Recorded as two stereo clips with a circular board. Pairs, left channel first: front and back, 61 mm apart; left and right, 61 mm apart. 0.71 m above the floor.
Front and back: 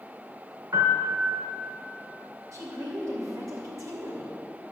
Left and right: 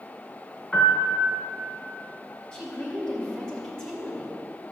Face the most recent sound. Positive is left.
turn(degrees=160)